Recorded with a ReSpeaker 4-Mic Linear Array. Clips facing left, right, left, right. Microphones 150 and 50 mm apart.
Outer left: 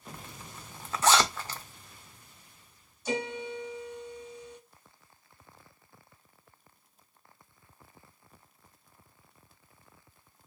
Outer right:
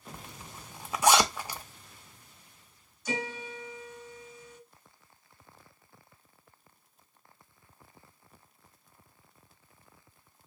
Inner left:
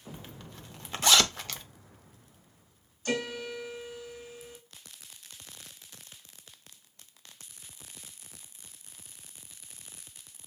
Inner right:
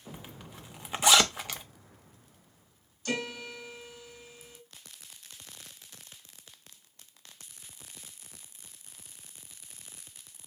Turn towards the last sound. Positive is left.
turn(degrees=30)  # may be behind; listen again after turning